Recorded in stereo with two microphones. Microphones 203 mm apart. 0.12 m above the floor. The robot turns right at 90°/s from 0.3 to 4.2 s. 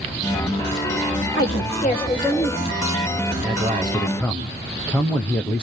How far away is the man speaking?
About 4 m.